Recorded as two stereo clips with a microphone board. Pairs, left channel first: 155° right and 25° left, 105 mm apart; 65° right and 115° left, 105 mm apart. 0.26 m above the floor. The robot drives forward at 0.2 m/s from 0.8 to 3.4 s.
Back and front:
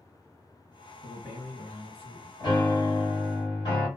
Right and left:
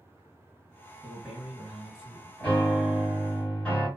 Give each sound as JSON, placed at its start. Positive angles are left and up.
{"t": 1.0, "sound": "a man speaking", "azimuth_deg": -165, "distance_m": 1.9}
{"t": 2.4, "sound": "a piano", "azimuth_deg": -140, "distance_m": 1.8}